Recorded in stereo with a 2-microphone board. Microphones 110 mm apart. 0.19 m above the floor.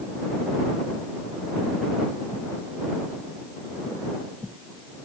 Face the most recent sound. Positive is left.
No sound to turn to.